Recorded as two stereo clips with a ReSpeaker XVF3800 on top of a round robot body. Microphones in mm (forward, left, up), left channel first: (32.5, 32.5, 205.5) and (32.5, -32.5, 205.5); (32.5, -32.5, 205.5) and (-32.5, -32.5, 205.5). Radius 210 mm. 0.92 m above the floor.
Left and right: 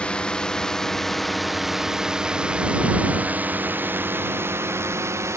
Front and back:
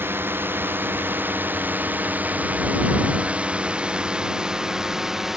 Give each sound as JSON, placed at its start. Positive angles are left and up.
{"t": 0.0, "sound": "a drone", "azimuth_deg": 155}